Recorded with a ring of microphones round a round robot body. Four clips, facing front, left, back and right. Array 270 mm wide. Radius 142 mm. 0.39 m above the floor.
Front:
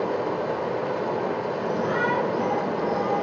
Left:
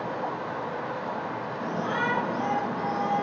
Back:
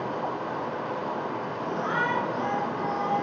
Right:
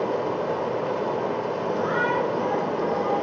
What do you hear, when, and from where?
0.0 s running water: 50° right, 2 m
1.6 s a shout: 50° left, 5.5 m